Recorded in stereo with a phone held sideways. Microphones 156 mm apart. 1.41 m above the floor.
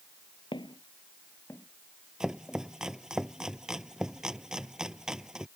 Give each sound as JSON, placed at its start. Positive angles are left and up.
{"t": 0.5, "sound": "footsteps", "side_deg": 30}
{"t": 2.2, "sound": "chopping", "side_deg": -5}